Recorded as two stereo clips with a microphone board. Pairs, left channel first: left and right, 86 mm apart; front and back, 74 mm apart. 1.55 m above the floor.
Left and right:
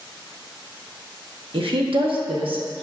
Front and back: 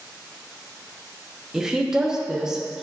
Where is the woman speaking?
100° right, 1.2 m.